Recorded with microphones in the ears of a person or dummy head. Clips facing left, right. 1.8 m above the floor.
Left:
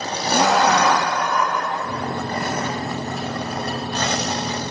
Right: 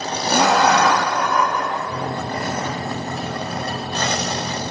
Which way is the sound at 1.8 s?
10° left (ahead or behind).